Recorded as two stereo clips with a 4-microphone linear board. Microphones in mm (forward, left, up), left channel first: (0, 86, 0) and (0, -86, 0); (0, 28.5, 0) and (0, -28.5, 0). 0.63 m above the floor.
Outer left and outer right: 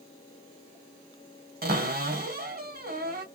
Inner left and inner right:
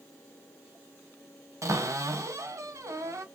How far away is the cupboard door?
About 1.0 m.